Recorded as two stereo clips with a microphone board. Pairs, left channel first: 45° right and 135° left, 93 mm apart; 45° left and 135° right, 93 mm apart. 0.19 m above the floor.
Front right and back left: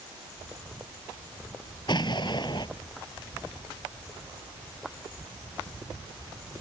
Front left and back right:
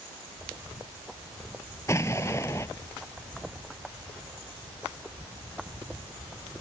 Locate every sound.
1.9 s an explosion: 10° right